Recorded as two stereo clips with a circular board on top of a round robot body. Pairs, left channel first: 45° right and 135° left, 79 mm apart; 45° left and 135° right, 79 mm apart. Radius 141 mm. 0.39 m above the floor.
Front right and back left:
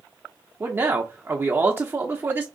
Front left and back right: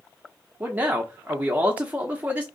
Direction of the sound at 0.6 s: 170° left.